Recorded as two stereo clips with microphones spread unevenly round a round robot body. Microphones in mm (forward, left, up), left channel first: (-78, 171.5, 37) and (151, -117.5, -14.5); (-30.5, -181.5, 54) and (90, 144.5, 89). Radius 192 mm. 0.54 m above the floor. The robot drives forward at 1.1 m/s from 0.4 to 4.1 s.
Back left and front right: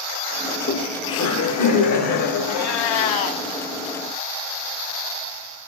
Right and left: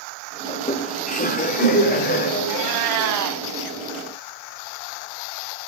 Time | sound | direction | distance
0.5 | laughter | 165° right | 1.0 m
2.5 | a cat meowing | 90° left | 1.6 m